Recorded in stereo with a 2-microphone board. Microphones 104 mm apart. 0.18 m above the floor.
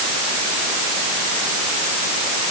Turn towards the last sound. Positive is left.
No sound to turn to.